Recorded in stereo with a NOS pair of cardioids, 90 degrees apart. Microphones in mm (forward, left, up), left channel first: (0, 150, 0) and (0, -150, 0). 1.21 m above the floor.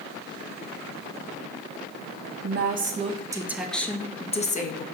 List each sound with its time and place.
2.4 s a woman speaking: 35° right, 1.1 m; by 4.8 s 30° left, 1.3 m